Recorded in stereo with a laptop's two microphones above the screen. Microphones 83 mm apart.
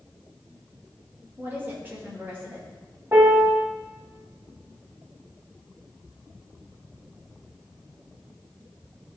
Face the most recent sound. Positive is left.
turn(degrees=-30)  # may be behind; listen again after turning